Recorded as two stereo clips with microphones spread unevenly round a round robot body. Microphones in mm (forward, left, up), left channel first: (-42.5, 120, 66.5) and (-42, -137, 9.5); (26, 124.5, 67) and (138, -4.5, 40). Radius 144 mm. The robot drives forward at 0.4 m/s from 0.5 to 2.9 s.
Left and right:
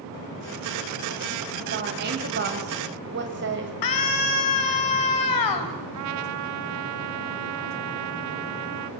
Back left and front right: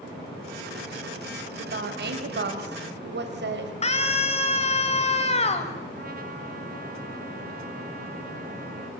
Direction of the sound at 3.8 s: 80° left.